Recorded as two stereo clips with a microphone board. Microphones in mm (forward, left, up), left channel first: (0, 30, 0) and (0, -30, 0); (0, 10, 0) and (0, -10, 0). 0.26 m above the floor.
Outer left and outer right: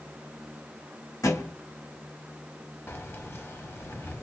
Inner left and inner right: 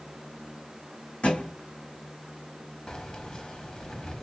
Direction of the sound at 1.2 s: 70° left (ahead or behind).